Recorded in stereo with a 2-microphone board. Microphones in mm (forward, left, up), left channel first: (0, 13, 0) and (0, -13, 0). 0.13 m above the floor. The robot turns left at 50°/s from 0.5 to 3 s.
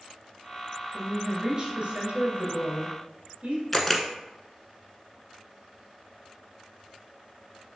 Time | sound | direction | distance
0.9 | a woman speaking | 5° right | 2.5 m
3.7 | a camera shutter | 10° left (ahead or behind) | 1.0 m